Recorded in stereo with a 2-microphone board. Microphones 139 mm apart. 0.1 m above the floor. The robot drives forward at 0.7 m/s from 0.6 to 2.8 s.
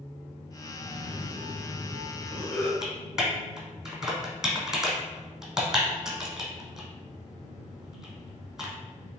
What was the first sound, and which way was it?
A cough, 10° left (ahead or behind).